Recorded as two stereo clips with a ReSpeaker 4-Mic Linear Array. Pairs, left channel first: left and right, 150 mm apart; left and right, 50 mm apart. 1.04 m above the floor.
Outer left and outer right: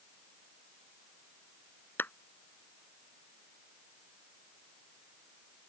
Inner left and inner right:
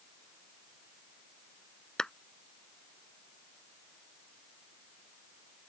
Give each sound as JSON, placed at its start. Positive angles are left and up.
{"t": 2.0, "sound": "a clap", "side_deg": 15}